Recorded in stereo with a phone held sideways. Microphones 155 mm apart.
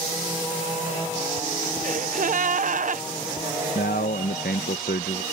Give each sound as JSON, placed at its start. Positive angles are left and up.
{"t": 1.8, "sound": "a gasp", "side_deg": -60}
{"t": 3.8, "sound": "a man speaking", "side_deg": 85}